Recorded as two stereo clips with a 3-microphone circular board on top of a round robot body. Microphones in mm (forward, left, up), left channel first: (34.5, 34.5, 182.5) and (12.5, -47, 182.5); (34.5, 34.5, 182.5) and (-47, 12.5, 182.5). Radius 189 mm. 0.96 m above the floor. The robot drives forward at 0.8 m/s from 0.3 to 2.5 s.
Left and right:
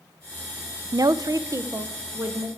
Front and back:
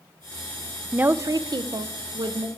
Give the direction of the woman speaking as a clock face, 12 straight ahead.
3 o'clock.